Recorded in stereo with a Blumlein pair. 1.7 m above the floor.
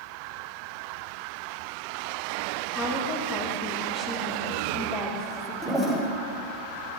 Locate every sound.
2.7 s a woman speaking: 5° left, 1.9 m
5.6 s a toilet flushing: 10° right, 1.3 m